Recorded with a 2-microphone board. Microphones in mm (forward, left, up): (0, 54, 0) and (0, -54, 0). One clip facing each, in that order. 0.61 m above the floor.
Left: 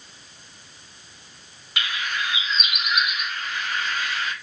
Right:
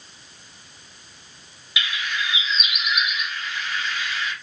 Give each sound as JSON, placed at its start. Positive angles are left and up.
{"t": 1.8, "sound": "a bird", "side_deg": 50, "distance_m": 1.4}